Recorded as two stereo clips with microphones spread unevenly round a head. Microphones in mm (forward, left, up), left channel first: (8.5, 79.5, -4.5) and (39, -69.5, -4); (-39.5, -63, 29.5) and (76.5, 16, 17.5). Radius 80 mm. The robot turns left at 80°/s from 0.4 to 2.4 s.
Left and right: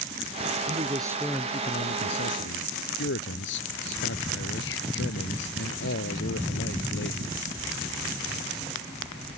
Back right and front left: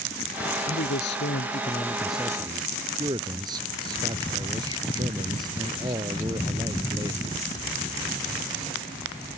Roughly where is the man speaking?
Behind right.